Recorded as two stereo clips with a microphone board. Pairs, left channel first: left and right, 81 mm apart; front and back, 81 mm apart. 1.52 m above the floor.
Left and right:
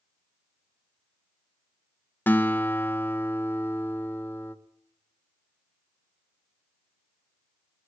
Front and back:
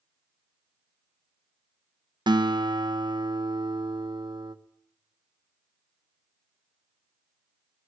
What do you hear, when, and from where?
2.3 s a guitar: 155° left, 1.2 m